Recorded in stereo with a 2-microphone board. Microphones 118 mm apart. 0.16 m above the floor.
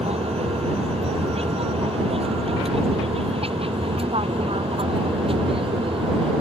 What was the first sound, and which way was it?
An aircraft, 60° right (ahead or behind).